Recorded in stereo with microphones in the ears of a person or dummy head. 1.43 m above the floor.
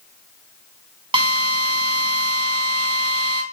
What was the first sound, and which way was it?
A drill, 30° right (ahead or behind).